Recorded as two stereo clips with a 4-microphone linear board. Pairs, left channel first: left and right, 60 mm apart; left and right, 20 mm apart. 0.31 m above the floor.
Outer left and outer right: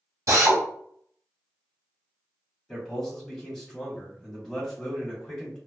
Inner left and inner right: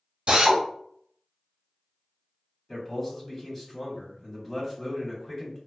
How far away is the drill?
About 0.9 m.